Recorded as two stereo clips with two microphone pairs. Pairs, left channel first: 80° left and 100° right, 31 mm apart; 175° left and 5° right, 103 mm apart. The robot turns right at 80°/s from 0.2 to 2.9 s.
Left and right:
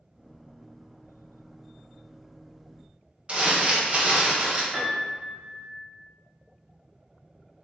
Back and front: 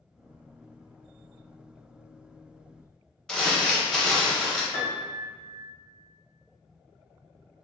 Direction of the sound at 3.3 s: 105° right.